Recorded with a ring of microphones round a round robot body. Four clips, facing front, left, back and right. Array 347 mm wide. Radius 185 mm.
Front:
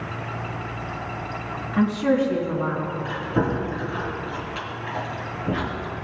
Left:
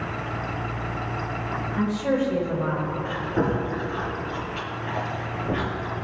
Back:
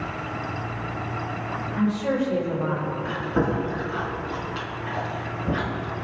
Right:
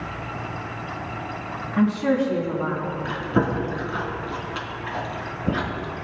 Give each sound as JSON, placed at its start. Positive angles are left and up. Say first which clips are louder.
{"t": 1.7, "sound": "a woman speaking", "louder": "right 4 dB, front 4 dB", "azimuth_deg": -55, "distance_m": 3.5}
{"t": 3.0, "sound": "chewing", "louder": "right 3 dB, even", "azimuth_deg": -95, "distance_m": 3.5}